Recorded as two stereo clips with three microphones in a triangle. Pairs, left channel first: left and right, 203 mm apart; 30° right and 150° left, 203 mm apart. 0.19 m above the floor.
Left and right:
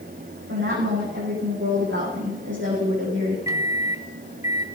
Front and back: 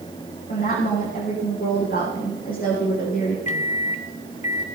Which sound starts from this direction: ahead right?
A microwave, at 3.5 s.